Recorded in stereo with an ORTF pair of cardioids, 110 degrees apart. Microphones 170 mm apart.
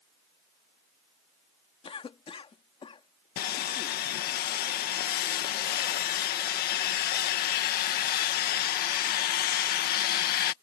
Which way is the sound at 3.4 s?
65° left.